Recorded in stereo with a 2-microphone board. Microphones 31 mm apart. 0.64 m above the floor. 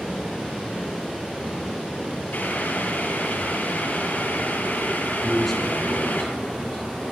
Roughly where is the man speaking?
Centre.